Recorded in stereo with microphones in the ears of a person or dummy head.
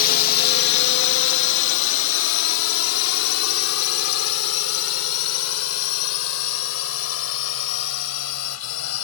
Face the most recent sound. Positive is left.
turn(degrees=80)